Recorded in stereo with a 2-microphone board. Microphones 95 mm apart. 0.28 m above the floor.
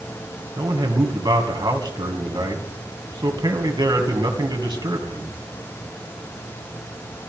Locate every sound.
0.6 s a man speaking: 55° right (ahead or behind), 2.5 m